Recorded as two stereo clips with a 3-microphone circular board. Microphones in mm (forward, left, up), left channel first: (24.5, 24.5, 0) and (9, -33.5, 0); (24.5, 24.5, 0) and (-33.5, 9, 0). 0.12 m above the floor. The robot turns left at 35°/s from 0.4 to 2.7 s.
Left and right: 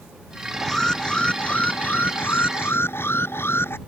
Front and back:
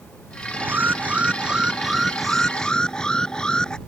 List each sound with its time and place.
0.5 s an alarm: 160° left; by 3.8 s 85° left